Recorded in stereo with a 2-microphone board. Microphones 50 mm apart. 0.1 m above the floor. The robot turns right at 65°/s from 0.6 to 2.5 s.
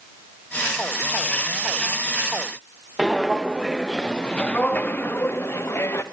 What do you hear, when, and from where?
3.0 s footsteps: 15° right (ahead or behind), 1.9 m; by 6.0 s 60° left (ahead or behind), 2.5 m